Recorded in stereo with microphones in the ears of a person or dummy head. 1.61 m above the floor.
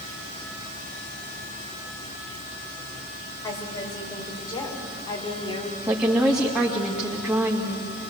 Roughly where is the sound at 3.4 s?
Centre.